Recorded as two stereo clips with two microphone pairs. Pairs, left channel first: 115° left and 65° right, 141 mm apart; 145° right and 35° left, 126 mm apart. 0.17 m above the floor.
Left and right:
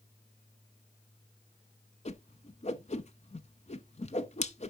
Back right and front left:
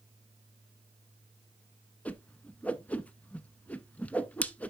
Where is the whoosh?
145° left, 0.5 m.